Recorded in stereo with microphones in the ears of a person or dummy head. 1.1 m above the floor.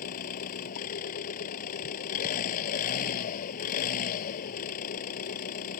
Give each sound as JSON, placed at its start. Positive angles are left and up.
{"t": 0.0, "sound": "an engine running", "side_deg": 50}